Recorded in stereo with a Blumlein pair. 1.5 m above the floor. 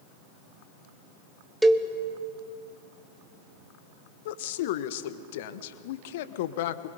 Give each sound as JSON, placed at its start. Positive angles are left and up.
{"t": 1.6, "sound": "a cowbell", "azimuth_deg": -5, "distance_m": 1.1}
{"t": 4.2, "sound": "a woman speaking", "azimuth_deg": 50, "distance_m": 1.0}